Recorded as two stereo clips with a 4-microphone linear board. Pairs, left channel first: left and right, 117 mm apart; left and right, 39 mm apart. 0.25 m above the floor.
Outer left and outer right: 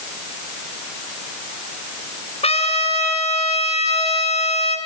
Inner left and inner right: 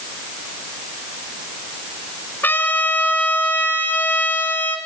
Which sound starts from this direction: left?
A trumpet, at 2.4 s.